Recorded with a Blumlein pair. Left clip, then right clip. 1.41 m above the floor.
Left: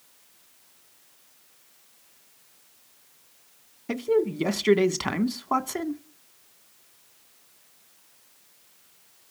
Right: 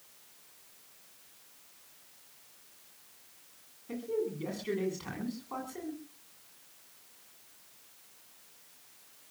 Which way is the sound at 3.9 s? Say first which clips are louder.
Left 10 dB; 50° left.